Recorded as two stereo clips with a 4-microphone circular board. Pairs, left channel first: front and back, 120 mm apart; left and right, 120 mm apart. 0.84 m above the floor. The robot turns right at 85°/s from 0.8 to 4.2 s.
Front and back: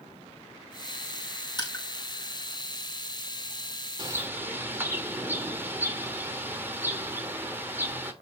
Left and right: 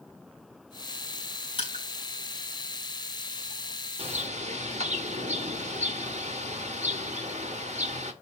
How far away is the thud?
No thud in this recording.